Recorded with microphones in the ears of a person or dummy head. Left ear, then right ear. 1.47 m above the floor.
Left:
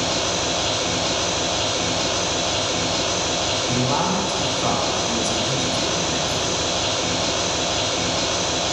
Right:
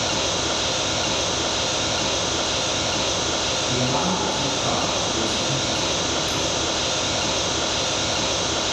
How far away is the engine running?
About 2.5 m.